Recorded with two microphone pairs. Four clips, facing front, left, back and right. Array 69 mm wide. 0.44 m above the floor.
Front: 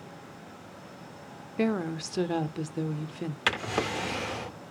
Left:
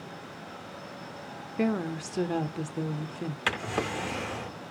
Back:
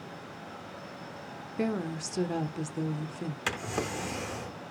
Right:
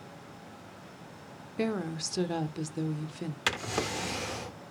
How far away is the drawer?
About 0.6 m.